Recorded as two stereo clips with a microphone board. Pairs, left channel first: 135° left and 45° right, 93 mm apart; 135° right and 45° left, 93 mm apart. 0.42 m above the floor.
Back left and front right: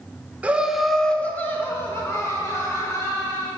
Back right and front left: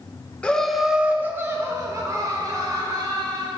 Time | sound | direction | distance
0.4 | laughter | 80° right | 0.7 m